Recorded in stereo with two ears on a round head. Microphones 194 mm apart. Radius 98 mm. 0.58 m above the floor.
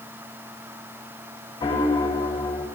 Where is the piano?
15° left (ahead or behind), 3 m.